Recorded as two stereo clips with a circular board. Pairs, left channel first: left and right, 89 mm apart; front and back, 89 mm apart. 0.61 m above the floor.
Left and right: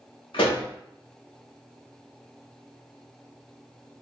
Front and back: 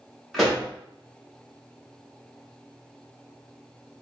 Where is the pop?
90° left, 1.1 m.